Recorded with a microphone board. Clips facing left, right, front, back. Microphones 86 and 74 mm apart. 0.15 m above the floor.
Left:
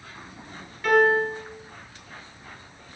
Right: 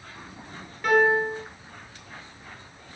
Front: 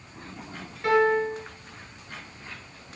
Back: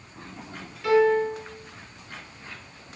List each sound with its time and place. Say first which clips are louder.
0.8 s a piano: left 1 dB, back 2 dB; 5° right, 1.3 m